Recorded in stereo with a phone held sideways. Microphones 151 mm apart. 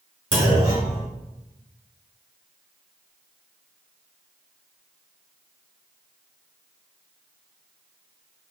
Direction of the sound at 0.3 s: 35° right (ahead or behind).